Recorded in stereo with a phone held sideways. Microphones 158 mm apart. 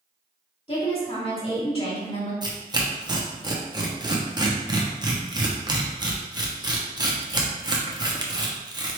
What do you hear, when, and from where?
0.7 s a woman speaking: 35° left (ahead or behind), 1.9 m
2.4 s tearing paper: 25° right (ahead or behind), 0.6 m